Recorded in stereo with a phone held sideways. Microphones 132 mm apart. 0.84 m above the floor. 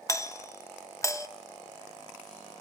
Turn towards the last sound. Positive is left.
turn(degrees=25)  # may be behind; listen again after turning